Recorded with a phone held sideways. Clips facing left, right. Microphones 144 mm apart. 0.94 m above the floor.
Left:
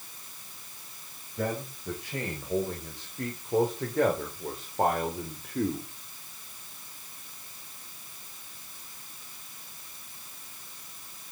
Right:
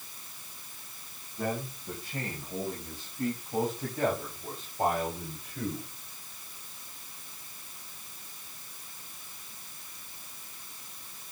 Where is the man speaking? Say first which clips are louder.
Left 1 dB; 85° left, 4.5 m; by 5.9 s 55° left (ahead or behind), 2.5 m.